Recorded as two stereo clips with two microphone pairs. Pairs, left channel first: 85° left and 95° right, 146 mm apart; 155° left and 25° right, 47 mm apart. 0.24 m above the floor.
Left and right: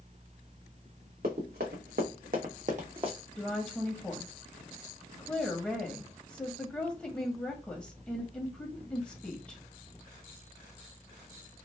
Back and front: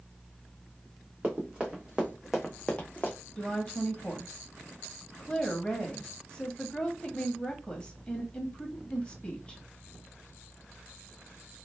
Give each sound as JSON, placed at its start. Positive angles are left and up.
{"t": 1.2, "sound": "running footsteps", "azimuth_deg": -85, "distance_m": 1.5}
{"t": 3.4, "sound": "a woman speaking", "azimuth_deg": 155, "distance_m": 1.1}